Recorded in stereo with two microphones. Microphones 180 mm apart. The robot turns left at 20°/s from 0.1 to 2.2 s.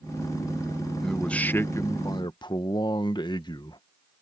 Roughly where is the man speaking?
Centre.